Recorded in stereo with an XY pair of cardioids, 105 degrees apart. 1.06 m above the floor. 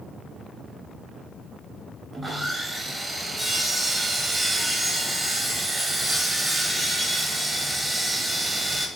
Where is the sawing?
15° right, 0.7 m.